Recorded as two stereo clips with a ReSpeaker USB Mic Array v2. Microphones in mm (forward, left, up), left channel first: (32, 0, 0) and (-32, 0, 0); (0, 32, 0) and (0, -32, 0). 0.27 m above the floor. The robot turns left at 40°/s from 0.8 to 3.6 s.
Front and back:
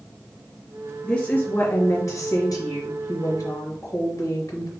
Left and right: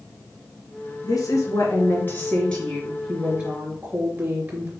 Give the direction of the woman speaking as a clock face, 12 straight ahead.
10 o'clock.